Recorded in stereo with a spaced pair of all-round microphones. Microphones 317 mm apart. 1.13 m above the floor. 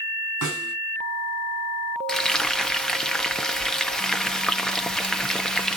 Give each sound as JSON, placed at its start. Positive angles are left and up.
{"t": 0.4, "sound": "a snare drum", "side_deg": 85, "distance_m": 7.0}
{"t": 2.1, "sound": "frying", "side_deg": 0, "distance_m": 0.6}